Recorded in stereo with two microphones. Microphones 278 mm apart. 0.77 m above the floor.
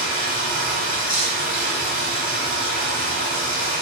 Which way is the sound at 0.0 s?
35° left (ahead or behind).